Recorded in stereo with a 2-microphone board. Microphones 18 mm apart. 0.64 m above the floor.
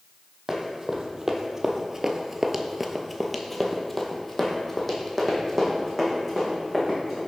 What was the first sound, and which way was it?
Running footsteps, 20° right (ahead or behind).